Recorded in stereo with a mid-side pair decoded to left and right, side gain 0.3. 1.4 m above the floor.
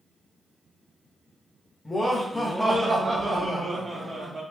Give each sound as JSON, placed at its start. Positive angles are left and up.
{"t": 1.9, "sound": "laughter", "azimuth_deg": 30, "distance_m": 0.7}